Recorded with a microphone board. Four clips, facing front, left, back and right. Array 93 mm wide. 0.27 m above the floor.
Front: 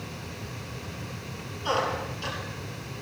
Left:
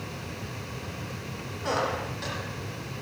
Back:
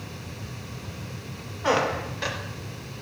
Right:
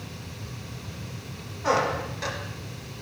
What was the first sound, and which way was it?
A squeak, 170° right.